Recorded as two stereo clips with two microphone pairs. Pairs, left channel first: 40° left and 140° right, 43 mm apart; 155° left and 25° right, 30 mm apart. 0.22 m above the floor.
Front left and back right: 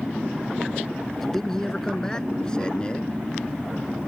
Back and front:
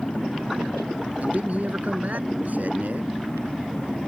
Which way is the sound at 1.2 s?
45° right.